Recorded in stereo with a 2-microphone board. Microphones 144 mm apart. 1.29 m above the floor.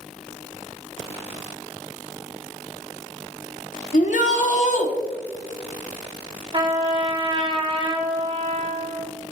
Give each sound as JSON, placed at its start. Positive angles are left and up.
{"t": 3.9, "sound": "a shout", "side_deg": 70, "distance_m": 1.3}
{"t": 6.5, "sound": "a trumpet", "side_deg": -35, "distance_m": 1.1}